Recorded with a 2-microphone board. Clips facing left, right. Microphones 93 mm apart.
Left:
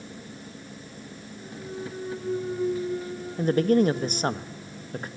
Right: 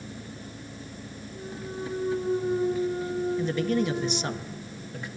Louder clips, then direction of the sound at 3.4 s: Left 10 dB; 45° left (ahead or behind).